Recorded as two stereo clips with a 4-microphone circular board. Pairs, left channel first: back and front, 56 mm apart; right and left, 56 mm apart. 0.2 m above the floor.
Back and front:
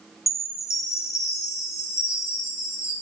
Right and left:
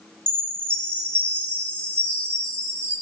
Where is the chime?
160° right, 1.1 m.